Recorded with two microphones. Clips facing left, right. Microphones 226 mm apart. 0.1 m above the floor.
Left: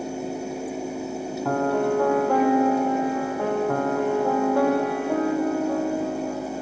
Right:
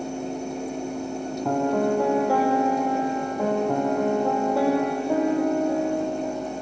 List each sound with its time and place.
1.4 s a piano: 10° right (ahead or behind), 2 m